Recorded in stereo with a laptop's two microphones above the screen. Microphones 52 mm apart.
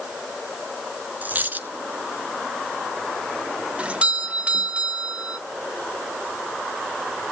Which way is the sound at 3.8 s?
25° right (ahead or behind).